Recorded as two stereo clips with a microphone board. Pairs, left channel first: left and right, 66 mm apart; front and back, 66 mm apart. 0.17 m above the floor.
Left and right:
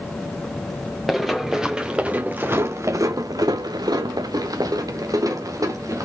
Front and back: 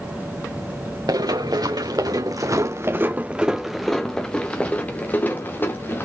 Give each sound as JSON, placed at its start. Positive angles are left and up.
{"t": 1.1, "sound": "running footsteps", "azimuth_deg": 180, "distance_m": 1.4}